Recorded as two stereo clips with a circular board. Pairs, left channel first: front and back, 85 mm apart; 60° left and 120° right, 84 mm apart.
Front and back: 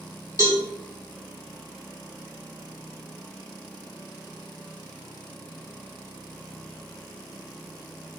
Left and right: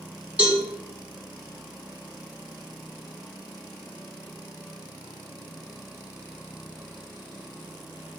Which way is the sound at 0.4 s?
Straight behind.